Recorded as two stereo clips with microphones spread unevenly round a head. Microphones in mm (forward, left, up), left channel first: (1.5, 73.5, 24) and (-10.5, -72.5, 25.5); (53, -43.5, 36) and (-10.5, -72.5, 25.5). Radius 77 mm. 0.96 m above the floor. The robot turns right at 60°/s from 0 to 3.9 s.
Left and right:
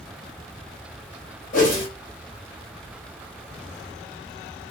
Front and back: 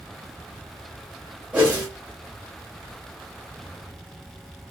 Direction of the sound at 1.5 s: 120° left.